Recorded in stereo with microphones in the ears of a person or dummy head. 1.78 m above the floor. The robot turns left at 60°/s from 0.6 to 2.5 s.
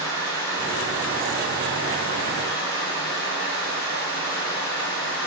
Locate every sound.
0.0 s running water: 135° right, 1.5 m; by 5.3 s 110° left, 1.5 m